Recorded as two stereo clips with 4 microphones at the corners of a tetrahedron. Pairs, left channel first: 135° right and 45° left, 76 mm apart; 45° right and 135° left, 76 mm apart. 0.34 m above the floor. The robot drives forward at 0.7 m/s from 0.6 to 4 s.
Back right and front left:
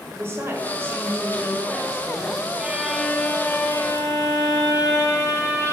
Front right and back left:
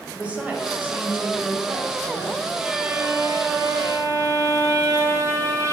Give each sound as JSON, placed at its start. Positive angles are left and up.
{"t": 0.1, "sound": "a woman speaking", "azimuth_deg": 75, "distance_m": 1.3}
{"t": 2.6, "sound": "a violin", "azimuth_deg": 75, "distance_m": 0.5}